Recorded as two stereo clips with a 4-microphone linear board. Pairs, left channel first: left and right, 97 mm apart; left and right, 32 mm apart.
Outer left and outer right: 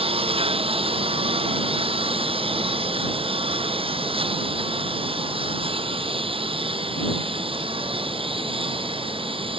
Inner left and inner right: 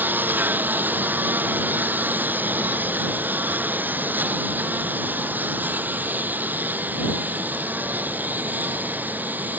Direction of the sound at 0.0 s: 75° right (ahead or behind).